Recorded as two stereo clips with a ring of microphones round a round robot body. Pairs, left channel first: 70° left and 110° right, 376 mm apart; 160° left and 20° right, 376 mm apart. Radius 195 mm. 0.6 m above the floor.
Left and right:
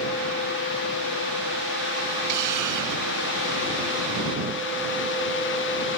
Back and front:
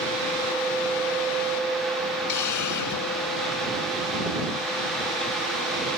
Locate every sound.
2.3 s a hiss: 155° right